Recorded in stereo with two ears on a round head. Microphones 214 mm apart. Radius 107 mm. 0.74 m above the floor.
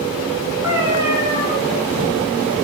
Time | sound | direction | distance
0.6 | a cat meowing | 10° right (ahead or behind) | 3.5 m